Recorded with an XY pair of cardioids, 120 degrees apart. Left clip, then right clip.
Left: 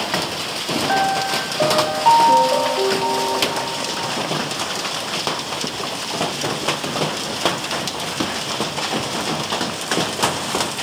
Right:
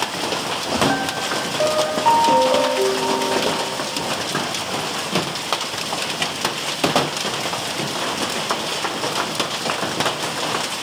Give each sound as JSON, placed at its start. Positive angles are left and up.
{"t": 0.9, "sound": "a piano", "azimuth_deg": 5, "distance_m": 1.1}